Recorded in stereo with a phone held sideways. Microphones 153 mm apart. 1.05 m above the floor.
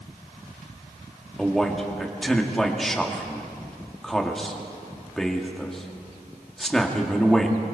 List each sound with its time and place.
1.4 s a man speaking: centre (ahead or behind), 2.5 m